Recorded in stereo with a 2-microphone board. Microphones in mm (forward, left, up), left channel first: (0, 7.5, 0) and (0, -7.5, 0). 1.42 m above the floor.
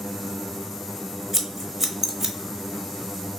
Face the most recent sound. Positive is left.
turn(degrees=-25)  # may be behind; listen again after turning